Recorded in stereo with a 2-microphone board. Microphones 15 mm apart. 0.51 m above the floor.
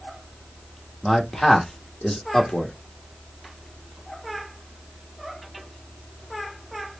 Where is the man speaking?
30° left (ahead or behind), 1.1 m.